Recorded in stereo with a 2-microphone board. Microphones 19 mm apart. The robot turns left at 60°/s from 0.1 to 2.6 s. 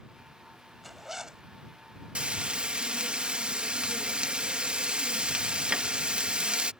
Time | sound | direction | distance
0.8 | a zipper | straight ahead | ?
2.1 | frying | 80° right | ?